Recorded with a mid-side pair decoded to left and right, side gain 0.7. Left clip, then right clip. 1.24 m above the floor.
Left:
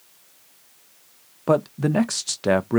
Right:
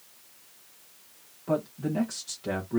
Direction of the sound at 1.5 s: 55° left.